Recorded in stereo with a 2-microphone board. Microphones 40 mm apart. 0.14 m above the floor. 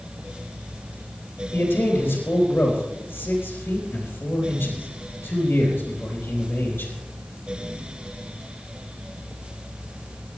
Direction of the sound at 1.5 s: 60° left (ahead or behind).